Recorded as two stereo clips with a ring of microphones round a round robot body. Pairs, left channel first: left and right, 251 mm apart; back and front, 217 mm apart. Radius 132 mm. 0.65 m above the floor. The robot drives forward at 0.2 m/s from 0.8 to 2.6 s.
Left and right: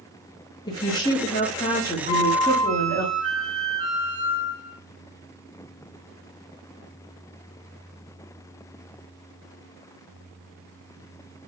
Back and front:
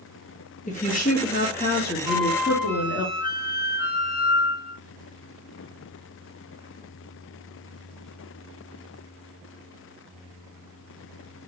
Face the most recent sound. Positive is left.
turn(degrees=-155)